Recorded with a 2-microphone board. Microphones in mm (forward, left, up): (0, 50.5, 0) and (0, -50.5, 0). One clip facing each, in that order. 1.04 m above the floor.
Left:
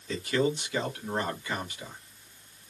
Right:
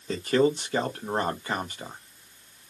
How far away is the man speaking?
About 1.0 m.